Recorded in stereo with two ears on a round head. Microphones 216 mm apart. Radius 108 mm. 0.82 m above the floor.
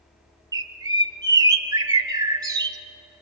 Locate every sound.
0.5 s a bird: 15° right (ahead or behind), 1.1 m